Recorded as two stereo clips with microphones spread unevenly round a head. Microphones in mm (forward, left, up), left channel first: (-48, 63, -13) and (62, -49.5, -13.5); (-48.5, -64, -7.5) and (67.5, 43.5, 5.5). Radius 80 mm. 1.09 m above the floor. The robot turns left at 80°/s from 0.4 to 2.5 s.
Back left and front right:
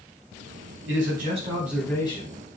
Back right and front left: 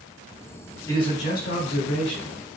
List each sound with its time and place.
0.9 s a man speaking: 65° right, 4.5 m; by 2.4 s straight behind, 4.5 m